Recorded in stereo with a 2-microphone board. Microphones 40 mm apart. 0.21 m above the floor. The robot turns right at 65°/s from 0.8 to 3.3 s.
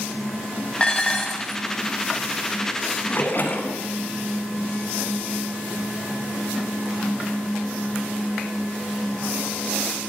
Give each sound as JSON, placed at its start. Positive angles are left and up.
{"t": 0.8, "sound": "dishes clattering", "side_deg": 20, "distance_m": 0.7}
{"t": 3.1, "sound": "a splash", "side_deg": 55, "distance_m": 1.0}